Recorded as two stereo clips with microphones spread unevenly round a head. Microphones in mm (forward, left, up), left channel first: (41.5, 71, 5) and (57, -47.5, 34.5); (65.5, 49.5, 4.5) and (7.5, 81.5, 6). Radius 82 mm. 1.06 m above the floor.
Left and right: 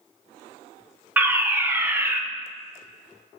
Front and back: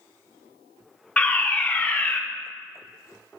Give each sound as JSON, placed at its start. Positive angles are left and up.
{"t": 1.2, "sound": "a fire alarm", "azimuth_deg": 5, "distance_m": 1.1}